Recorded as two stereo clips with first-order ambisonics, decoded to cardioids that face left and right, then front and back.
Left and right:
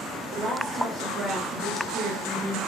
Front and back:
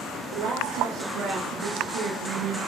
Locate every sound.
0.3 s a woman speaking: 160° right, 8 m; by 2.6 s 175° right, 8.5 m